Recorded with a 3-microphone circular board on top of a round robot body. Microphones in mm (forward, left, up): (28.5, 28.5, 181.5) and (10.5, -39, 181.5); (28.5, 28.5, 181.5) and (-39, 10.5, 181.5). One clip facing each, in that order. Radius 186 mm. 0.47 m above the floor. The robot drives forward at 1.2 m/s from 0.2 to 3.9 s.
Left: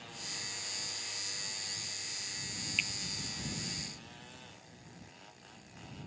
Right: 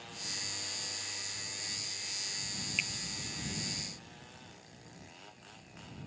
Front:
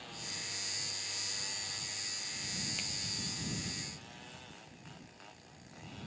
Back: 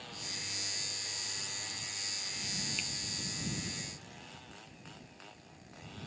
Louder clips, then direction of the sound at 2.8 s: Left 1 dB, back 2 dB; 30° right.